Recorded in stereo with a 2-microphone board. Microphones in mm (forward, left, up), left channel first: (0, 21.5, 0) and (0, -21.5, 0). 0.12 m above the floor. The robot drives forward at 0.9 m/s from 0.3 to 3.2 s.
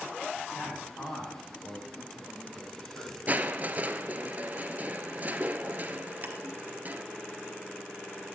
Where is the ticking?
40° right (ahead or behind), 1.0 m.